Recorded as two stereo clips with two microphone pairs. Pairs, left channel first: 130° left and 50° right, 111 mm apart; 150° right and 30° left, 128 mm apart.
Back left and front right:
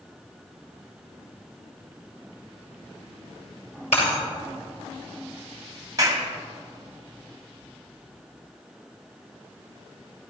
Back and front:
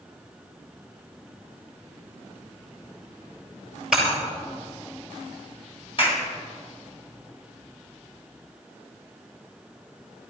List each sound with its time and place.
3.9 s breaking glass: 115° left, 6.5 m
6.0 s a clap: 105° right, 2.5 m